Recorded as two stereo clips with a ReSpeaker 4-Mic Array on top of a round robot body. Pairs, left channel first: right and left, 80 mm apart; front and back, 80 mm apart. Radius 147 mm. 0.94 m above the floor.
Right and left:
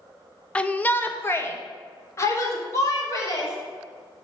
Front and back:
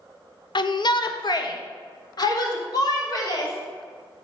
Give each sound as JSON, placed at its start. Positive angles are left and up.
{"t": 0.6, "sound": "a shout", "azimuth_deg": -15, "distance_m": 0.7}